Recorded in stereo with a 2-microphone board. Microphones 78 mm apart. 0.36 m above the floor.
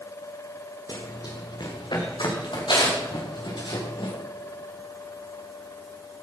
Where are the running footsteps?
55° left (ahead or behind), 4 m; by 4.1 s 85° left, 6.5 m.